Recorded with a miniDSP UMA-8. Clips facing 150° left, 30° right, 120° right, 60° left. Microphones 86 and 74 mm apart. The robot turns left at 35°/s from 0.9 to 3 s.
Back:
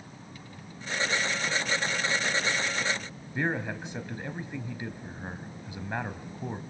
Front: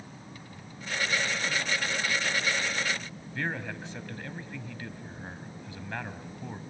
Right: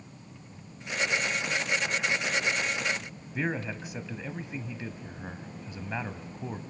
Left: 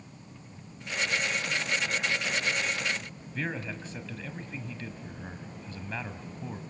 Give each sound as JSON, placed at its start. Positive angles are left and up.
{"t": 3.4, "sound": "a man speaking", "azimuth_deg": -170, "distance_m": 1.2}